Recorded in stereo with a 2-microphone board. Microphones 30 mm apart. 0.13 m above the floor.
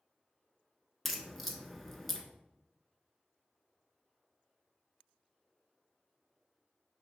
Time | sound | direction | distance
1.1 | a crack | 5° left (ahead or behind) | 0.6 m